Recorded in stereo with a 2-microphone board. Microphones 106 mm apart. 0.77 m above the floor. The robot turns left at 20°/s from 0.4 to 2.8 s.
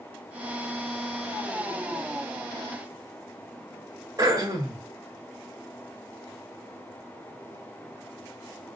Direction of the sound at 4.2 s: 35° right (ahead or behind).